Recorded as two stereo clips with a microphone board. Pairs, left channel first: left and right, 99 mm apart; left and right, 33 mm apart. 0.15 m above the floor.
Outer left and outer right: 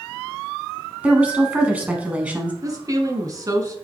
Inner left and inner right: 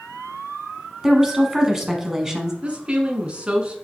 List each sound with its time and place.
1.0 s a woman speaking: 15° right (ahead or behind), 1.1 m
2.6 s a woman speaking: 35° right (ahead or behind), 1.2 m